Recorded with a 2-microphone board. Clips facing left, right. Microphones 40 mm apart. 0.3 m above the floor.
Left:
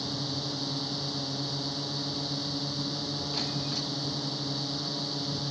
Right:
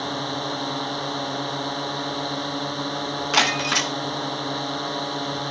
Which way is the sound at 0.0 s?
50° right (ahead or behind).